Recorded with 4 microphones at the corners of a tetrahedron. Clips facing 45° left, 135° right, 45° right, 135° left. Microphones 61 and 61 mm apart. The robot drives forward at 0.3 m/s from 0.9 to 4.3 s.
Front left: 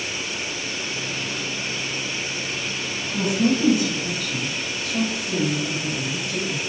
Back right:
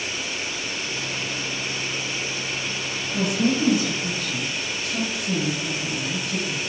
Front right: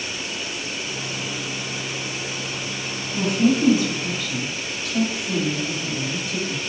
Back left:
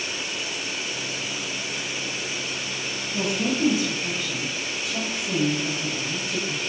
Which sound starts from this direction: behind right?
A woman speaking, at 3.1 s.